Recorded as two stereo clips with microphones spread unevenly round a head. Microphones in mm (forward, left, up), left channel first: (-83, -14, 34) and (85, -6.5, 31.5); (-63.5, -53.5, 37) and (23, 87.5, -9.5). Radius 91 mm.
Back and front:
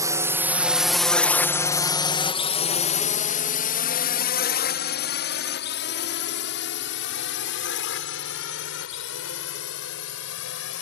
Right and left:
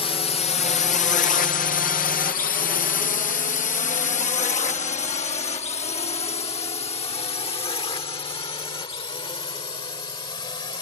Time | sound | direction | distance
0.0 | a drone | 55° right | ?